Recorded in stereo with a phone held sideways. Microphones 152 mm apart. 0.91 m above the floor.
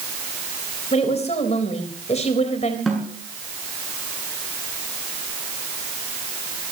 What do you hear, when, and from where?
0.9 s a woman speaking: 45° left (ahead or behind), 4 m
2.9 s a snare drum: centre (ahead or behind), 8 m